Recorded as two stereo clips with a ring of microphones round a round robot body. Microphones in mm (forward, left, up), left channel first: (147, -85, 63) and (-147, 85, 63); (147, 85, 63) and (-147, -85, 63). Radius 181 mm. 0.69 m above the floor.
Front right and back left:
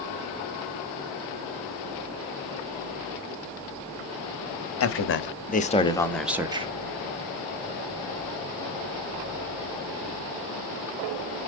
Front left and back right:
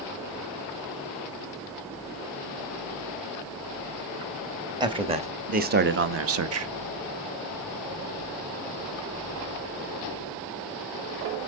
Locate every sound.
4.8 s a man speaking: 75° right, 1.3 m; by 6.7 s 145° right, 1.0 m